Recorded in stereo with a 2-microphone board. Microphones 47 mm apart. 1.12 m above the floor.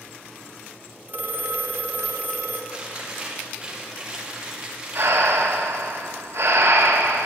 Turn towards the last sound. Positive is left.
turn(degrees=-70)  # may be behind; listen again after turning